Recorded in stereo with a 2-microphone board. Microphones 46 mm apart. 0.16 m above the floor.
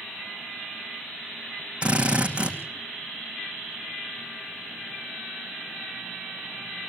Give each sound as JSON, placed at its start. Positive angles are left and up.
{"t": 1.8, "sound": "a drill", "side_deg": -25, "distance_m": 3.5}